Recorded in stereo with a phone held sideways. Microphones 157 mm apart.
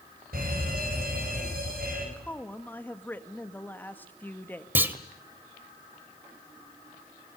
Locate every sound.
0.3 s a fire alarm: 70° right (ahead or behind), 8 m
2.2 s a woman speaking: 10° left (ahead or behind), 1.6 m
4.8 s a clunk: 10° right (ahead or behind), 1.5 m